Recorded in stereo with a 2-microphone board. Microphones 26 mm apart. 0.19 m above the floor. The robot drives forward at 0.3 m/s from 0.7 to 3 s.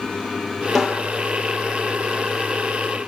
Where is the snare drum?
5° right (ahead or behind), 1.9 m.